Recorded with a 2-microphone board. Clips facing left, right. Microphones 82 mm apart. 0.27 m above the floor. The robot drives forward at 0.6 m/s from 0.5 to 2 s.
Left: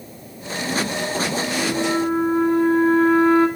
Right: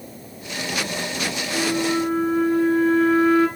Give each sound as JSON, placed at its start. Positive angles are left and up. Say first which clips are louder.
{"t": 1.5, "sound": "a flute", "louder": "right 1 dB", "side_deg": 30, "distance_m": 0.8}